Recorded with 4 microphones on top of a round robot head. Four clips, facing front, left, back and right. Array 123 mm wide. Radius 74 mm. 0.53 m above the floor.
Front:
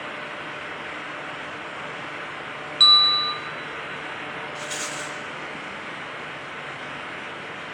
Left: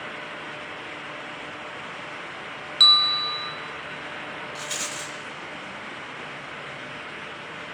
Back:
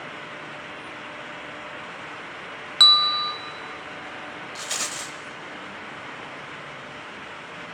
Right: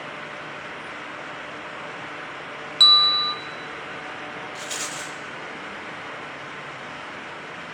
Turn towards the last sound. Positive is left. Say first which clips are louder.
# right 1 dB, front 2 dB
turn(degrees=175)